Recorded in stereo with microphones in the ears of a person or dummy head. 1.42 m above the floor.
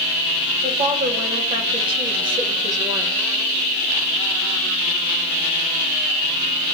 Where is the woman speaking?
30° right (ahead or behind), 3.5 m; by 3.1 s 20° right (ahead or behind), 2 m.